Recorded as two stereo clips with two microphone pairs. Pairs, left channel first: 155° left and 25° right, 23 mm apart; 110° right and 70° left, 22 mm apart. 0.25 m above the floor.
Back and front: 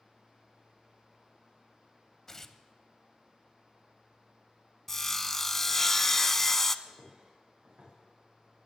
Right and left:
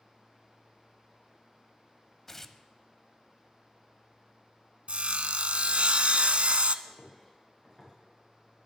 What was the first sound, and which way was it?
Tearing paper, 155° right.